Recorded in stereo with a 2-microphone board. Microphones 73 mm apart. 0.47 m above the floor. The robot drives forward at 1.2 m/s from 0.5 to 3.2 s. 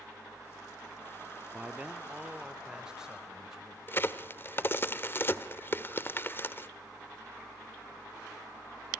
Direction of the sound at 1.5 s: 20° right (ahead or behind).